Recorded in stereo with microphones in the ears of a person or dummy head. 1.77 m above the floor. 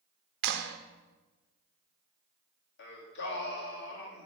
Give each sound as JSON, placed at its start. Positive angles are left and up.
{"t": 0.4, "sound": "a clap", "side_deg": -60, "distance_m": 0.8}
{"t": 2.8, "sound": "singing", "side_deg": 60, "distance_m": 2.5}